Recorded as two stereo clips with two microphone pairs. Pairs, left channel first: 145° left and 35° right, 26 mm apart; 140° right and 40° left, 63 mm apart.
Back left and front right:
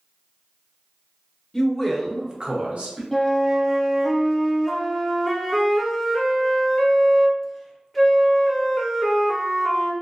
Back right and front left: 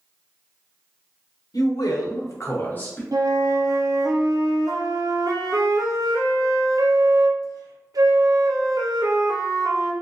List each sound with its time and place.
1.5 s a man speaking: 150° right, 0.9 m; by 3.0 s 70° right, 1.0 m
3.1 s a flute: 55° left, 0.5 m